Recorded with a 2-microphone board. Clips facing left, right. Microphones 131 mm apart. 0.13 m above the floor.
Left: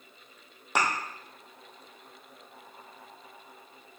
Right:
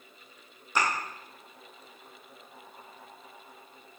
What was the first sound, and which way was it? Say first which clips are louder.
A thud: even; 75° left (ahead or behind).